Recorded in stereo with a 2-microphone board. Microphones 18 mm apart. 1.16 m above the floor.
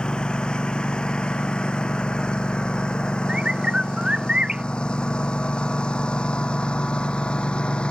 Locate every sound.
0.0 s a lawn mower: 60° left (ahead or behind); by 7.9 s 75° left (ahead or behind)
3.3 s a bird: 65° right (ahead or behind)